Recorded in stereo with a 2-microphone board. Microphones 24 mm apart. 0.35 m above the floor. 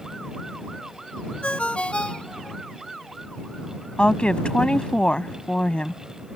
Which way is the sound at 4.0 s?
40° left (ahead or behind).